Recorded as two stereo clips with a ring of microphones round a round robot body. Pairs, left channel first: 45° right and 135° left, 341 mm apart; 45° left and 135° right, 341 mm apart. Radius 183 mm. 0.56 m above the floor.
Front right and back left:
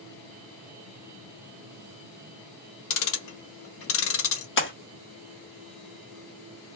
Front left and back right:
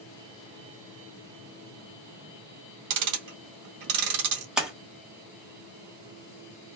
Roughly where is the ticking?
Right.